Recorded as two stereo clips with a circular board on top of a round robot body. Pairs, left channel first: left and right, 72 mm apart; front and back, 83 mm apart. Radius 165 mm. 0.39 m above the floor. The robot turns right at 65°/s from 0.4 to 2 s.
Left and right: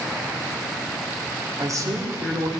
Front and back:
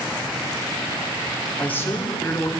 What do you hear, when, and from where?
1.6 s a man speaking: 75° right, 2.0 m; by 2.5 s 45° right, 2.0 m